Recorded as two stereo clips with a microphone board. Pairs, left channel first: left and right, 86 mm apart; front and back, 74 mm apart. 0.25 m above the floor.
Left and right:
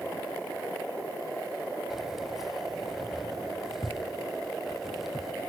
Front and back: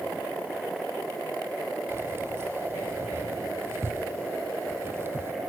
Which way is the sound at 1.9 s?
175° right.